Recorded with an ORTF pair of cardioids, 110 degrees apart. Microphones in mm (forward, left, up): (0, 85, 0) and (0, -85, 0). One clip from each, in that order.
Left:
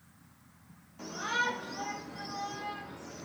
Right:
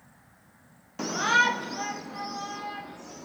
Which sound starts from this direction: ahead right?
A shout, at 1.0 s.